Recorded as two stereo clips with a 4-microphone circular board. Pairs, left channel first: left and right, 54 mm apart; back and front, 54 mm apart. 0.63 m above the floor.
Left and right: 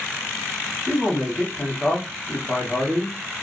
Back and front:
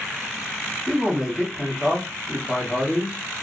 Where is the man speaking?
35° right, 1.0 m.